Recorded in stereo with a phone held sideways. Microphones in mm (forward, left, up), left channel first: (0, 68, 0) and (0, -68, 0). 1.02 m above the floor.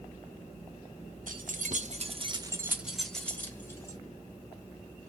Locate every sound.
1.3 s keys jangling: 85° right, 0.9 m; by 4.0 s 20° left (ahead or behind), 1.3 m